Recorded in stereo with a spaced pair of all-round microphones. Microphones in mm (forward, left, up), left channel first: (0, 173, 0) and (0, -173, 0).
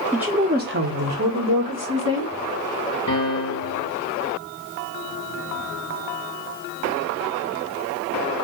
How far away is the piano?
About 1.5 m.